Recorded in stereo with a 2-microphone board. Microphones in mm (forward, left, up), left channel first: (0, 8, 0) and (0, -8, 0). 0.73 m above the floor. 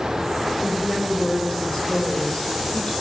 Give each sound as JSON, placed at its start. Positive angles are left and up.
{"t": 0.6, "sound": "a woman speaking", "side_deg": 55, "distance_m": 3.0}